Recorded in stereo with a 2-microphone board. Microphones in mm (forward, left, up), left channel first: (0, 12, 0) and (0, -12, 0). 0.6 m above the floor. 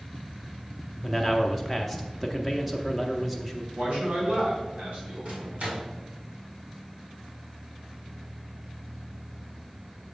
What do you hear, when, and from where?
1.0 s a man speaking: centre (ahead or behind), 0.6 m
3.7 s a man speaking: 60° right (ahead or behind), 3 m
5.2 s a microwave: 55° right (ahead or behind), 1.9 m